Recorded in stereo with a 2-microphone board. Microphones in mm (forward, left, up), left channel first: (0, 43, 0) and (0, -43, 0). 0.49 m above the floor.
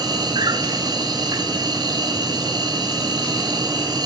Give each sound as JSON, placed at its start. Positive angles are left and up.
{"t": 0.0, "sound": "an insect", "side_deg": -55, "distance_m": 2.5}